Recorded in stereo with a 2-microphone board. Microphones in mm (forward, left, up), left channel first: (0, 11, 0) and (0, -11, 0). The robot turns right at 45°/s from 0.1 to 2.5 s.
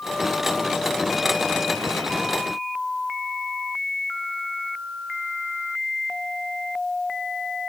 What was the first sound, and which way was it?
Only background noise.